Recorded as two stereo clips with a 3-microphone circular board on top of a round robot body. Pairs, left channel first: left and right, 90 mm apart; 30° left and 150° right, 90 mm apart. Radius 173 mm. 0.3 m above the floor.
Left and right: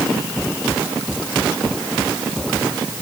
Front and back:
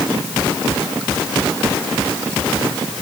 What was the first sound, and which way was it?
Only background noise.